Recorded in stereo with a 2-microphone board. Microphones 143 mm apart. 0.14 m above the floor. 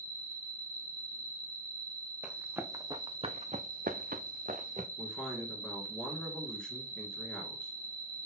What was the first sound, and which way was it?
An insect, 40° left (ahead or behind).